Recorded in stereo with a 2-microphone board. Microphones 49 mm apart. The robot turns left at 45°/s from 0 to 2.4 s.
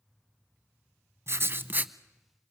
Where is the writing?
115° right, 0.7 m; by 1.9 s 145° right, 0.7 m.